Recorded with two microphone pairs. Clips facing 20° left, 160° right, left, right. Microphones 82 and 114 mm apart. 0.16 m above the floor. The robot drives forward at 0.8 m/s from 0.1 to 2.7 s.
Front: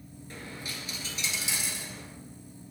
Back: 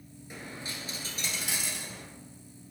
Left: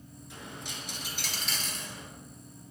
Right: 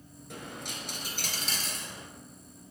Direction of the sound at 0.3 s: 90° right.